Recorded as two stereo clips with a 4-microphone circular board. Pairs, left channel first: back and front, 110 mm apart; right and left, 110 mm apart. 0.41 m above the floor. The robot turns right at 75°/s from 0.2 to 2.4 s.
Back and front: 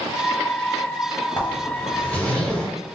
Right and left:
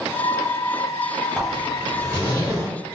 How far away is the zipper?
About 1.2 m.